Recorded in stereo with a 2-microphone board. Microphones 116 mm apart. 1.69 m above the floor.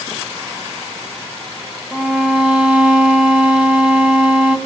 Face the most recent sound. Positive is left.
turn(degrees=-10)  # may be behind; listen again after turning